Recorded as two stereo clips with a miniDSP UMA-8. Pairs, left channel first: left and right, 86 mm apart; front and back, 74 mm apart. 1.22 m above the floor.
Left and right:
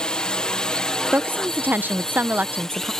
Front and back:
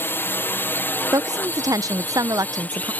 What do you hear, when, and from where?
0.0 s a drone: 20° left; by 3.0 s 15° left
1.1 s a woman speaking: 155° right